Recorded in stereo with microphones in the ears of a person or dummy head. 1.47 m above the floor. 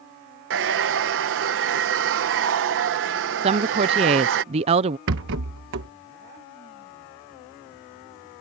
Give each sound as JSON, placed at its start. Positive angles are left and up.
{"t": 0.5, "sound": "a hair dryer", "side_deg": -65}
{"t": 3.4, "sound": "a woman speaking", "side_deg": -30}
{"t": 5.1, "sound": "a rattle", "side_deg": -70}